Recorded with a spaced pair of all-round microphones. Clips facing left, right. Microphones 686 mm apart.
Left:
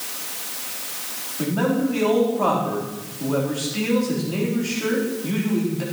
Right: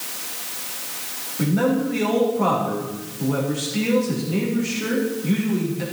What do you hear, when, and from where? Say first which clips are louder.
1.4 s a man speaking: right 1 dB; 50° right (ahead or behind), 3.5 m